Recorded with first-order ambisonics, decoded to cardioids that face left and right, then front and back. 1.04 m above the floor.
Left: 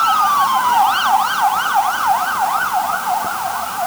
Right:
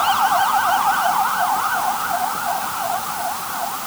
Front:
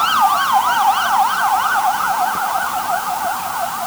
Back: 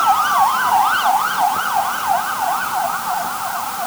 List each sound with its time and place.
Only background noise.